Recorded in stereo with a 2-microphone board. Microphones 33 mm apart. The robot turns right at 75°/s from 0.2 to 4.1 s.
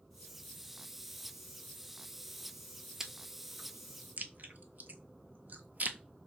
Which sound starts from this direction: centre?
Chewing, at 3.0 s.